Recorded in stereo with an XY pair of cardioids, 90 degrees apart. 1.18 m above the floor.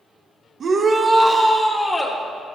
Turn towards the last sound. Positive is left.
turn(degrees=25)